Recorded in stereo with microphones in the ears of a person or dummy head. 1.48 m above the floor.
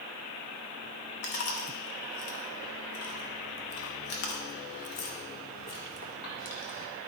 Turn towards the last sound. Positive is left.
turn(degrees=45)  # may be behind; listen again after turning